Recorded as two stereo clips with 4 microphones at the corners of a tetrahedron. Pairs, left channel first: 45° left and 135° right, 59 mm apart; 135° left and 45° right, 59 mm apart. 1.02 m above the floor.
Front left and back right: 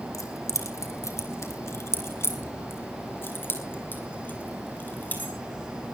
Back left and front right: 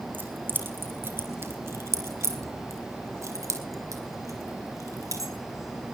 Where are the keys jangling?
15° left, 3 m; by 5.3 s 20° right, 4.5 m.